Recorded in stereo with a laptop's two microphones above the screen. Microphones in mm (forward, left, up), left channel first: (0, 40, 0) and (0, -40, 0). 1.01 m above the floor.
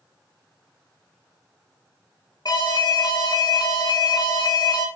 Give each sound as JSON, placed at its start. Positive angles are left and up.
{"t": 2.5, "sound": "an alarm", "side_deg": 55, "distance_m": 1.8}